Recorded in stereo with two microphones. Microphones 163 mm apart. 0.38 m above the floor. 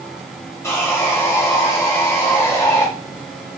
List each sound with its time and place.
0.6 s sawing: 15° left (ahead or behind), 0.7 m